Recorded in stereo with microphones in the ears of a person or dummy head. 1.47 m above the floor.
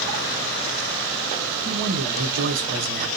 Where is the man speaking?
65° right (ahead or behind), 1.1 m.